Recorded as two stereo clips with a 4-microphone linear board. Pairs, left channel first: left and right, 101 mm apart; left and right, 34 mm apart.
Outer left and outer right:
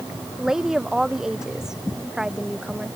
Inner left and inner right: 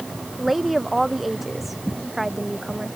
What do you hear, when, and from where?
0.4 s a woman speaking: 5° right (ahead or behind)